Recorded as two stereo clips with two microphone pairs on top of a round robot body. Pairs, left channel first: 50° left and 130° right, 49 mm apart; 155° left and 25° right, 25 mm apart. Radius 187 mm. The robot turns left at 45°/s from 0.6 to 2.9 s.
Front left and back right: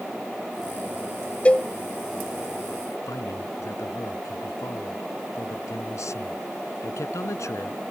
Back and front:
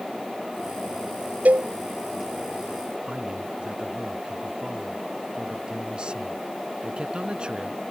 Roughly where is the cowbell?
Ahead.